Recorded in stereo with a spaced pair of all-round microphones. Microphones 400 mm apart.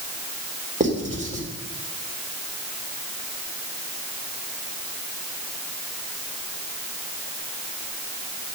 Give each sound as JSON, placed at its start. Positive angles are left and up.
{"t": 0.8, "sound": "writing", "side_deg": -20, "distance_m": 3.5}